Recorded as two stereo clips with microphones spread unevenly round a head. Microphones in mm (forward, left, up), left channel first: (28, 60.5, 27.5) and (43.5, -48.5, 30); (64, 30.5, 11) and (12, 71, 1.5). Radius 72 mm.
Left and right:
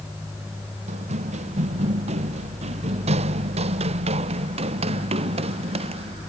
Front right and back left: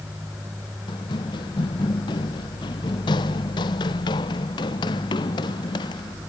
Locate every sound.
0.9 s running footsteps: 60° right; by 6.2 s 50° right